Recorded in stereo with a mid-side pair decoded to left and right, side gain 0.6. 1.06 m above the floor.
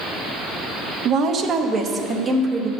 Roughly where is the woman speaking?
Ahead right.